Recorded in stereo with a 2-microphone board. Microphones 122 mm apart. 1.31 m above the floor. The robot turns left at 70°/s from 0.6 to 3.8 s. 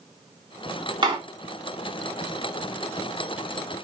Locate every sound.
1.0 s a door slam: 35° right (ahead or behind), 3 m; by 1.2 s 50° right (ahead or behind), 3 m